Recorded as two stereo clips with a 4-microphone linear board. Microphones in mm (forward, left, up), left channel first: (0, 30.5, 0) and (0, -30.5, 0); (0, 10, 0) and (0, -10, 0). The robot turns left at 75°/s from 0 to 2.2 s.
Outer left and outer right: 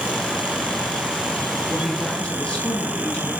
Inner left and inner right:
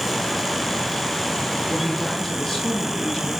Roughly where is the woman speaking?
Behind.